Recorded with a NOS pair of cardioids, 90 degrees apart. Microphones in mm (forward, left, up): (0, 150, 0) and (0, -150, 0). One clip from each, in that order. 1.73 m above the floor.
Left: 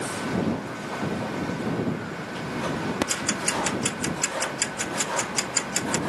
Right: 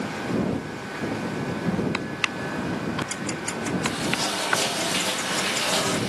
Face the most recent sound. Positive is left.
turn(degrees=55)